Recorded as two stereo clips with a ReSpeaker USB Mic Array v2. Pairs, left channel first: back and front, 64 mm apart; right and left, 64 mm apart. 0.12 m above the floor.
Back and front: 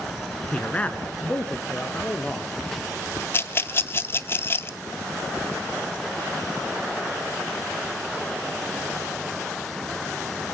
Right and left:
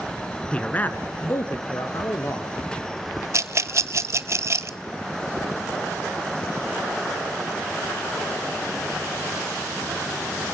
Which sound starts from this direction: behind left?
A rattle, at 3.3 s.